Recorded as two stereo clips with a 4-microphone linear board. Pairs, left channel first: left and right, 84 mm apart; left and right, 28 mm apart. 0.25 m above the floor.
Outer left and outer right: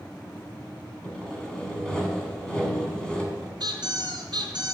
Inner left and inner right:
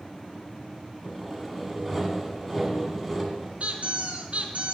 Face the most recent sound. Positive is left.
turn(degrees=-60)  # may be behind; listen again after turning